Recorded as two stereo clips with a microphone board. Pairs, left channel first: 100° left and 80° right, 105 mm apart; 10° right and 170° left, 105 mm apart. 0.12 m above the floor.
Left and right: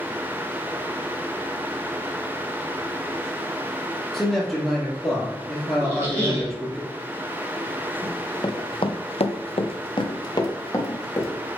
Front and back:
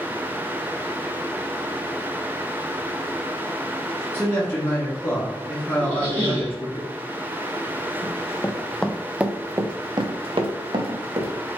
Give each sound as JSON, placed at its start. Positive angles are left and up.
{"t": 4.1, "sound": "a man speaking", "azimuth_deg": 15, "distance_m": 1.7}
{"t": 5.8, "sound": "a squeak", "azimuth_deg": -145, "distance_m": 2.0}
{"t": 8.0, "sound": "running footsteps", "azimuth_deg": 40, "distance_m": 1.1}